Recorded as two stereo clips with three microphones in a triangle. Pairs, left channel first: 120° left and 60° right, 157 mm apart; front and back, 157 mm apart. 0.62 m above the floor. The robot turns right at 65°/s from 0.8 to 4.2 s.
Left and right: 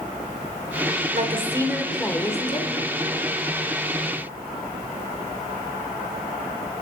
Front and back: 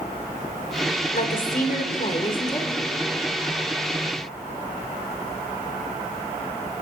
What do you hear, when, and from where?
1.1 s a woman speaking: 25° right, 2 m; by 2.7 s 80° left, 2 m